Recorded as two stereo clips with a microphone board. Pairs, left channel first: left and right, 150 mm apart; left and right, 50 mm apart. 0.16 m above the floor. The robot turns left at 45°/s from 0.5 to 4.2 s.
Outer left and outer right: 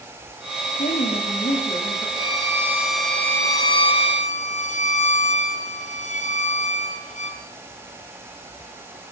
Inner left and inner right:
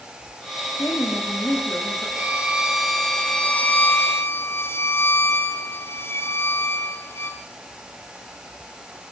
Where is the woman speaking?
80° left, 9.5 m; by 2.1 s 20° left, 9.5 m.